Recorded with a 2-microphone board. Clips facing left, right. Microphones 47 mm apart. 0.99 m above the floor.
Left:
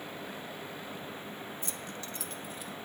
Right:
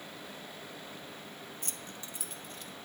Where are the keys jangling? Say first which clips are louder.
Left 4 dB; 55° right (ahead or behind), 0.7 m; by 2.7 s 15° left (ahead or behind), 1.0 m.